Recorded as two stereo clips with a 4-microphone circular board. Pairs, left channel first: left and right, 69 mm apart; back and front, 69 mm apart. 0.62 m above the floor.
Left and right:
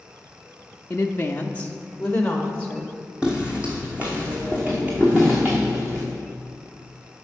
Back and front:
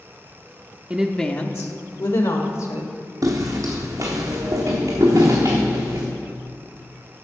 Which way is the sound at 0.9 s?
50° left.